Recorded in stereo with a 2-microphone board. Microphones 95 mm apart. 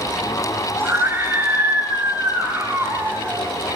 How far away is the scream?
About 5.5 m.